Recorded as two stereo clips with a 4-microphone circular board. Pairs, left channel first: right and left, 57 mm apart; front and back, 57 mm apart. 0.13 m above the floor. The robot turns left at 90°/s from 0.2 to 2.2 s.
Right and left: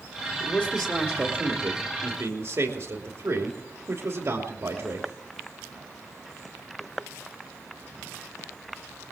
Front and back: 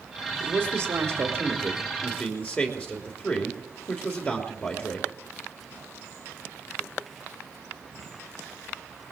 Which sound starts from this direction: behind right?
A man speaking, at 0.4 s.